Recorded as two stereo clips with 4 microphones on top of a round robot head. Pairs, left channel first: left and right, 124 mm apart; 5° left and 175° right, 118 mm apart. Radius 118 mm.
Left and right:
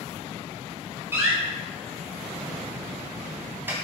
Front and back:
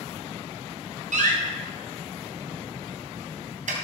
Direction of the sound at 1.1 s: 165° right.